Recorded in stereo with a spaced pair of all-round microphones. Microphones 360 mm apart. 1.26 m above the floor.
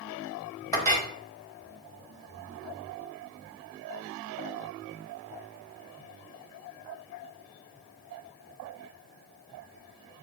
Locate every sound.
0.7 s a clink: 10° left (ahead or behind), 0.8 m